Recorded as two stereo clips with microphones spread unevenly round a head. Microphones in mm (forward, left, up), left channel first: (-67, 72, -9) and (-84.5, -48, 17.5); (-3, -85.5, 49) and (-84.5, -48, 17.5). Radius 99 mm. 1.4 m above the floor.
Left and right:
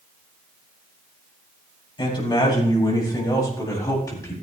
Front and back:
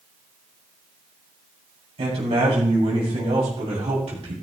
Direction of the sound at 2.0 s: 130° left.